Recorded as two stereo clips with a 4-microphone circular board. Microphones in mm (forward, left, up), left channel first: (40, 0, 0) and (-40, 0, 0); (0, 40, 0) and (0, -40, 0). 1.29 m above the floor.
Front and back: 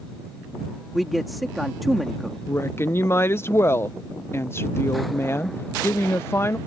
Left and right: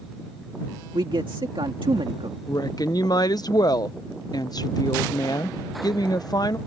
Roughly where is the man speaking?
Right.